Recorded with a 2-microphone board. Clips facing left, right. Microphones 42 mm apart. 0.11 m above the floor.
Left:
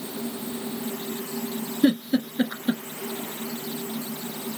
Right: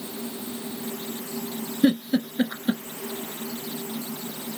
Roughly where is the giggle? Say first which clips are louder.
Even; centre.